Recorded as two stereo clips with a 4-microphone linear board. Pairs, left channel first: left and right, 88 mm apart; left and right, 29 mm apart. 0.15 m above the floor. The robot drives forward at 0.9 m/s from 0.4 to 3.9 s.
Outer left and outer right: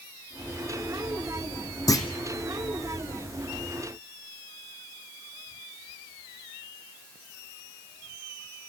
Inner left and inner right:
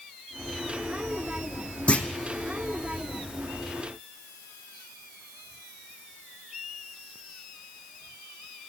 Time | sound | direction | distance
1.9 | a clunk | 40° left (ahead or behind) | 1.8 m